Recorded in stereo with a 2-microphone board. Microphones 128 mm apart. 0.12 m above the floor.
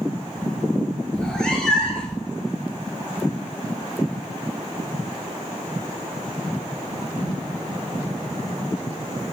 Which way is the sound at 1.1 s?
5° left (ahead or behind).